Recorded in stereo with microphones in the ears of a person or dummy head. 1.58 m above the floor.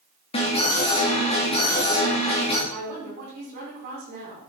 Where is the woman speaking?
50° right (ahead or behind), 5.5 m.